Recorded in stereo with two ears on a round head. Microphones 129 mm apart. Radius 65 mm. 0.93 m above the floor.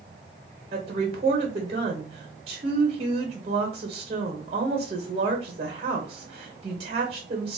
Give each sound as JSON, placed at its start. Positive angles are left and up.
{"t": 0.7, "sound": "a woman speaking", "side_deg": -35, "distance_m": 0.8}